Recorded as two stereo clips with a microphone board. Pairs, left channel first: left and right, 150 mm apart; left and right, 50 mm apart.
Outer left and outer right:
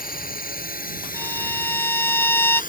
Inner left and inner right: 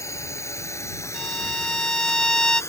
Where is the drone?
80° left; by 2.7 s 70° left (ahead or behind).